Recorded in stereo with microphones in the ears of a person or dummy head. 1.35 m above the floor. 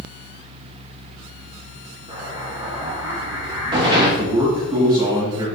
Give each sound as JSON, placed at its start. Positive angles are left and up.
{"t": 2.1, "sound": "an explosion", "side_deg": -25, "distance_m": 0.9}
{"t": 4.2, "sound": "a man speaking", "side_deg": -25, "distance_m": 1.6}